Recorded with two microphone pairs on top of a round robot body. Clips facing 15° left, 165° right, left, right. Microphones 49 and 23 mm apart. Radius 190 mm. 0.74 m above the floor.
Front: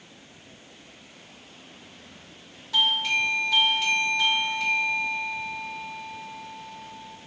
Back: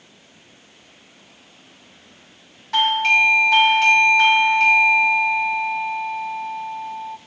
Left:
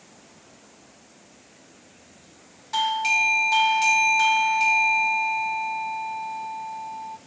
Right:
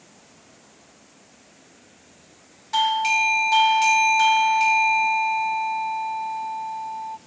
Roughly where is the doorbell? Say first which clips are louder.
Back 8 dB, right 2 dB; behind.